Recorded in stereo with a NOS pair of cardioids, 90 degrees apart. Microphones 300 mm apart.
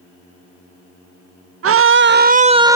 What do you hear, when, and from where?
1.6 s a scream: 50° right; by 2.8 s 10° right